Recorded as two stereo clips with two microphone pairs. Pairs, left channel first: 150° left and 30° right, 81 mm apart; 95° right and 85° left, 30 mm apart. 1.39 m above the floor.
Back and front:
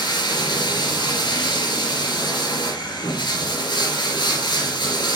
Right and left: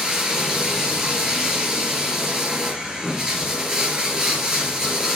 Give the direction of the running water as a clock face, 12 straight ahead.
7 o'clock.